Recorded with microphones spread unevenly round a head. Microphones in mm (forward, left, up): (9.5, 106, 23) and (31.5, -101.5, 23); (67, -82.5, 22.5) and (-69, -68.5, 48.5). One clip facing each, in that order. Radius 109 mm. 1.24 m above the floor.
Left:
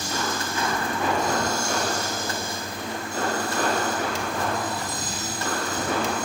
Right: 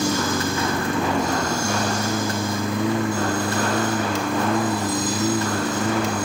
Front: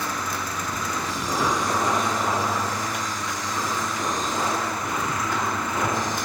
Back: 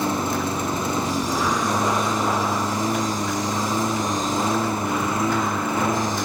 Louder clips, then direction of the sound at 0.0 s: Right 8 dB, back 7 dB; 120° right.